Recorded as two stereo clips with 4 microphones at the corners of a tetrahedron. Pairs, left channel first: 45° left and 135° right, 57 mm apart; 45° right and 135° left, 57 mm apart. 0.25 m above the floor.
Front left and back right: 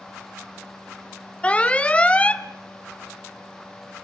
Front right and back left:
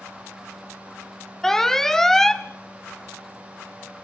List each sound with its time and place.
1.4 s an alarm: 30° left, 0.9 m